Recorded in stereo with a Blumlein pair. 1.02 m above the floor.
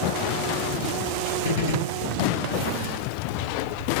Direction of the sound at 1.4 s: 65° left.